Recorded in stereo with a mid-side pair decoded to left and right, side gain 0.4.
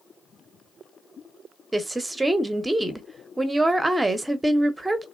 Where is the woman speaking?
20° right, 0.8 m.